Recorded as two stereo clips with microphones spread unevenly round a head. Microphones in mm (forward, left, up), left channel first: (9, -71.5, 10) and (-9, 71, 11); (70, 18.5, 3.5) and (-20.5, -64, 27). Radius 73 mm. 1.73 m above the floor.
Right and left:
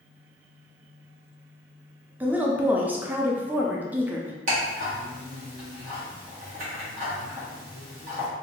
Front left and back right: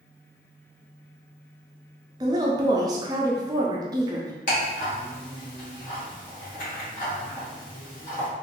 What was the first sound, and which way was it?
A woman speaking, 175° left.